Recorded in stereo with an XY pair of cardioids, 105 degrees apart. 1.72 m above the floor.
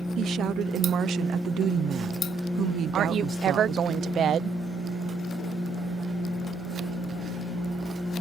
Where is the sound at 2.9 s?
60° right.